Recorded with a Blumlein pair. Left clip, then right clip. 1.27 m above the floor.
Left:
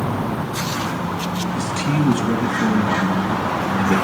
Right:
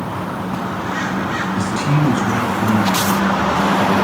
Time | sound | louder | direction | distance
1.6 | a man speaking | right 2 dB | straight ahead | 1.1 m